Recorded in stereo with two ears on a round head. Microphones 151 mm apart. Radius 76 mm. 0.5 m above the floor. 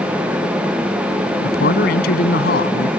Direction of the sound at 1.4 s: 65° left (ahead or behind).